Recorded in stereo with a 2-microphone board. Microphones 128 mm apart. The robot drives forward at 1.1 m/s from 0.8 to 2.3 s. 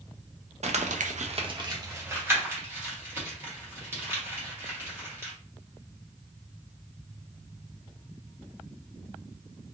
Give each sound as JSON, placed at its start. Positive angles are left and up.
{"t": 0.6, "sound": "crumpling", "side_deg": -60, "distance_m": 0.6}